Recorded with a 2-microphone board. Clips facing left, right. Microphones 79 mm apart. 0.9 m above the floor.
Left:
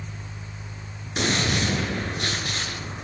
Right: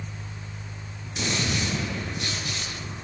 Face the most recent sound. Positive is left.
turn(degrees=55)  # may be behind; listen again after turning